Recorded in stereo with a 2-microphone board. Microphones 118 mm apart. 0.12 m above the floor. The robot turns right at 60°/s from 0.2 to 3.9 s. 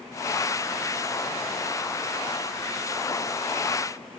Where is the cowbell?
I don't hear a cowbell.